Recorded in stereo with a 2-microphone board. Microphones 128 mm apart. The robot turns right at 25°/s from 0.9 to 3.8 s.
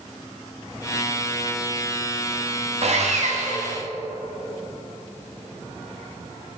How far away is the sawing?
About 1.0 m.